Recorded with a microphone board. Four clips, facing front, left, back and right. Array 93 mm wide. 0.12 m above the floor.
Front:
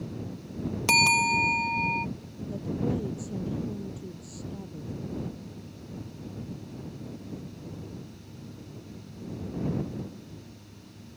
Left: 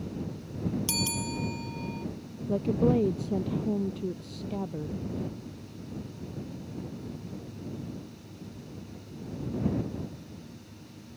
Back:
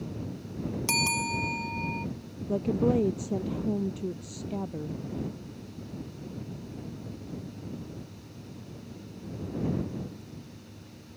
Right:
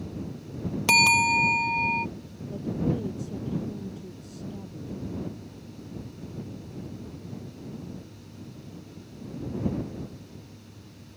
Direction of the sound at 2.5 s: 135° left.